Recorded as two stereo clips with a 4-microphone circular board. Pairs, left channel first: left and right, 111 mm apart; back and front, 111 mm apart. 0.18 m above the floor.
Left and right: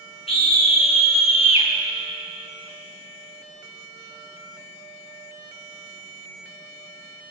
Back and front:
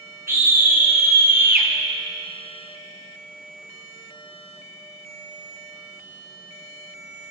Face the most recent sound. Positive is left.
turn(degrees=70)